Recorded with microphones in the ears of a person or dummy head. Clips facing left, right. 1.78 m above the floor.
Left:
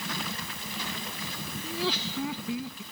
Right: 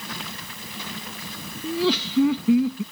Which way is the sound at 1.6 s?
60° right (ahead or behind).